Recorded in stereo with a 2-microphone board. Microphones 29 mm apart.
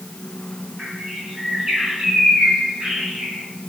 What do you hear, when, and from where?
0.8 s a bird: 20° right (ahead or behind), 4 m